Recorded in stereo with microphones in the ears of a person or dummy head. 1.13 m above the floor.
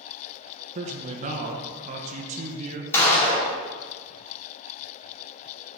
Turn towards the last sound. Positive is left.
turn(degrees=15)  # may be behind; listen again after turning